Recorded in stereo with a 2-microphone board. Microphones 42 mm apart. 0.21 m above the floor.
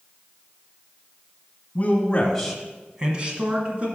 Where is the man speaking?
35° left (ahead or behind), 1.3 m; by 3.9 s 35° right (ahead or behind), 2 m.